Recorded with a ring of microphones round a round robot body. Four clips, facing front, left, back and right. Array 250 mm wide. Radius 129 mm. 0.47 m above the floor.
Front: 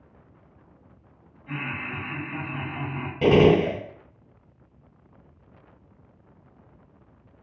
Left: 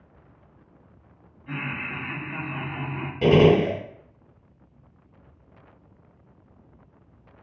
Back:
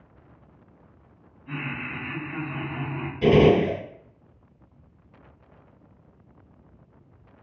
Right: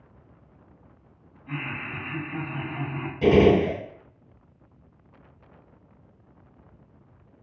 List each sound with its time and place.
1.5 s laughter: 80° left, 1.6 m; by 3.1 s 130° left, 1.2 m
3.2 s a gunshot: 25° left, 1.5 m